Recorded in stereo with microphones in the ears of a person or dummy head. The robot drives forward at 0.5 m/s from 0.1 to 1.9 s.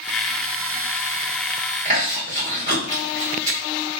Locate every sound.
1.9 s chewing: 35° right (ahead or behind), 1.3 m